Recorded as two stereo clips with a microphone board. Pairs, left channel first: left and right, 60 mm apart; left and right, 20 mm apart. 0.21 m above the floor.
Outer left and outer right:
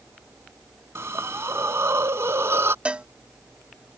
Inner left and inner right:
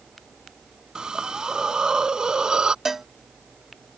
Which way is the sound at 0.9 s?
50° right (ahead or behind).